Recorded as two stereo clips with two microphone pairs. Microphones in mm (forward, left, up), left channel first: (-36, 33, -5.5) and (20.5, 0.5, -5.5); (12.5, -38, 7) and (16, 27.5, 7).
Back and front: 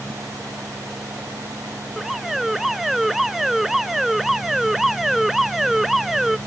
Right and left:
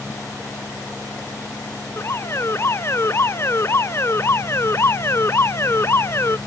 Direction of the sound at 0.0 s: 55° right.